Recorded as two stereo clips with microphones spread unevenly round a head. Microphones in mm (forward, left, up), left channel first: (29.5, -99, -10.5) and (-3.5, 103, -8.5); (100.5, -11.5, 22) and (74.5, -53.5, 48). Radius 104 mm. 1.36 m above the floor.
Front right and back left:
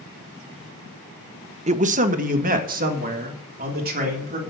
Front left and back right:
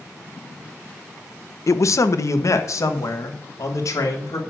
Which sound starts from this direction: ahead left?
A man speaking, at 1.7 s.